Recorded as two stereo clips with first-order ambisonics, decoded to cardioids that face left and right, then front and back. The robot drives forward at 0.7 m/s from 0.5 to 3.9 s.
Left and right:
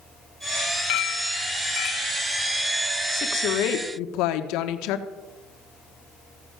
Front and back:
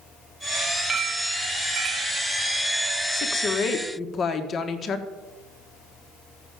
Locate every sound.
0.9 s a clink: 110° left, 0.9 m; by 2.2 s 145° left, 1.4 m
3.1 s a woman speaking: 45° left, 1.6 m; by 5.1 s 65° left, 1.3 m